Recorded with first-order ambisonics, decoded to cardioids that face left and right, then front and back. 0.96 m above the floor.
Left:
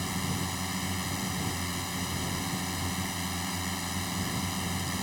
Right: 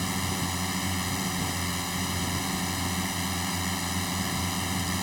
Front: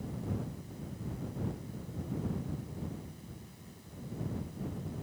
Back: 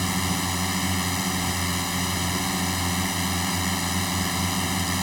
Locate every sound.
0.0 s a drone: 170° right